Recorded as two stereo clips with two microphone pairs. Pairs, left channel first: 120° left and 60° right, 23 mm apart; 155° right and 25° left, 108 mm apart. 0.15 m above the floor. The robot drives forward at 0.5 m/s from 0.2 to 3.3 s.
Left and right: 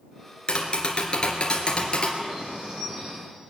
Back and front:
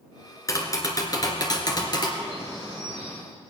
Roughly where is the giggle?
No giggle in this recording.